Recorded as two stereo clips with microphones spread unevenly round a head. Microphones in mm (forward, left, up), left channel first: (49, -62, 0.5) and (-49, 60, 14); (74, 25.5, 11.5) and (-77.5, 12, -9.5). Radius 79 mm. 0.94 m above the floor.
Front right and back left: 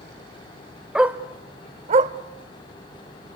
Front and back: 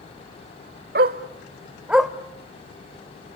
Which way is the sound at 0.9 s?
150° right.